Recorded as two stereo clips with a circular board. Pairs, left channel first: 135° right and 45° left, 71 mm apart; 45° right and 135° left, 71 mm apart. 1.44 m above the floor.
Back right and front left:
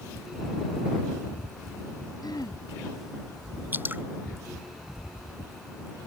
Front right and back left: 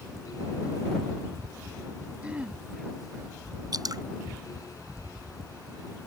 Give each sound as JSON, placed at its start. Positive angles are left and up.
{"t": 2.2, "sound": "throat clearing", "azimuth_deg": -155}
{"t": 3.7, "sound": "dripping", "azimuth_deg": 105}